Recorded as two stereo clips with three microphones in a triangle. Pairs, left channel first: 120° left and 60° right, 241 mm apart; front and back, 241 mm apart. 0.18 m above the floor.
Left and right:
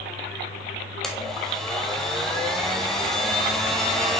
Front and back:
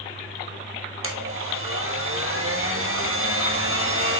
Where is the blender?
150° right, 1.9 m.